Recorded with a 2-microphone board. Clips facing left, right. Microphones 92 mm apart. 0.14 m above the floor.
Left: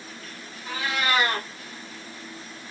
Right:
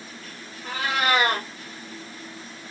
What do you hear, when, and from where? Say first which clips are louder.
0.6 s a cat meowing: right 3 dB; 65° right (ahead or behind), 1.7 m